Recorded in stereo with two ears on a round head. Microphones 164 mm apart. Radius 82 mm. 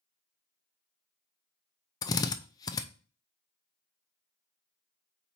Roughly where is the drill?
Left.